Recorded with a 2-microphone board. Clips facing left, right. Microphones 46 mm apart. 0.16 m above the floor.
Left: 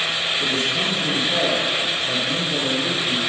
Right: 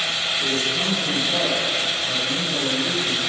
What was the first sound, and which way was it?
A man speaking, 25° left (ahead or behind).